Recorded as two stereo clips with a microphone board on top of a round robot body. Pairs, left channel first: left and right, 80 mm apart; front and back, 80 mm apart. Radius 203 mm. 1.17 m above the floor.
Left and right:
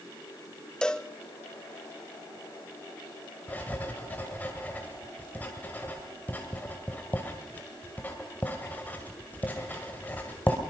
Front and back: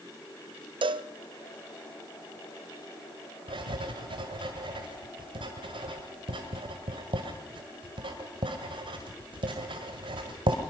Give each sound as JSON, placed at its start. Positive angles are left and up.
{"t": 0.8, "sound": "a cowbell", "azimuth_deg": 170, "distance_m": 0.6}
{"t": 3.5, "sound": "writing", "azimuth_deg": 160, "distance_m": 1.9}